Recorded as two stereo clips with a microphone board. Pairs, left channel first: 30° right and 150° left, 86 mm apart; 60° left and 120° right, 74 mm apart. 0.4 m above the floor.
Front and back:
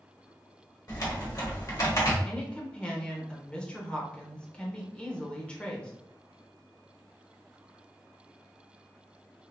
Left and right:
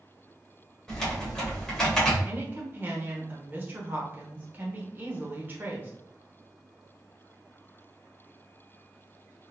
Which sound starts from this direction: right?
A woman speaking, at 2.2 s.